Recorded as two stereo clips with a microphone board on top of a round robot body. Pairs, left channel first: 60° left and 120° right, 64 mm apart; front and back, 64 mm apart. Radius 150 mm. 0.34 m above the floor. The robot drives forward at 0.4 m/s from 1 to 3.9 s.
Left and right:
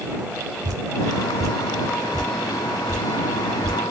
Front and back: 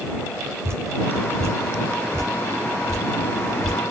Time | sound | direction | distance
0.6 | dripping | 140° right | 4 m